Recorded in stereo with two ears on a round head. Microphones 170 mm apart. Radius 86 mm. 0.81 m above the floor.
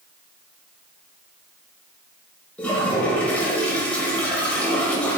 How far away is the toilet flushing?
About 0.9 m.